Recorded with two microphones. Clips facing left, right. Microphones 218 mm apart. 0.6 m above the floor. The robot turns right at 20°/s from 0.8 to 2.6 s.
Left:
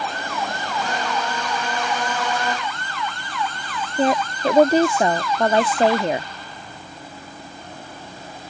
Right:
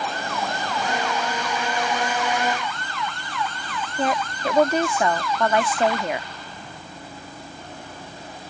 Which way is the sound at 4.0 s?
30° left (ahead or behind).